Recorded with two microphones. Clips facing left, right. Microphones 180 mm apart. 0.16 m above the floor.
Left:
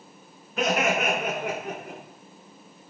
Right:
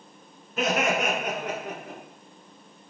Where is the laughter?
Centre (ahead or behind), 2 m; by 2.0 s 20° left (ahead or behind), 2 m.